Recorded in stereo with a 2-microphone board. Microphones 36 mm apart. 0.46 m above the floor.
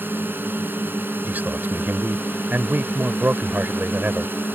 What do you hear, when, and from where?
0.0 s a drone: 70° right (ahead or behind)
1.2 s a man speaking: 60° right (ahead or behind)